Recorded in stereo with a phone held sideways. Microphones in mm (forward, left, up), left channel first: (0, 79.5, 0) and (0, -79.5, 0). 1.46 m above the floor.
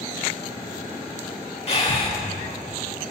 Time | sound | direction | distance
1.7 | breathing | 40° left (ahead or behind) | 1.9 m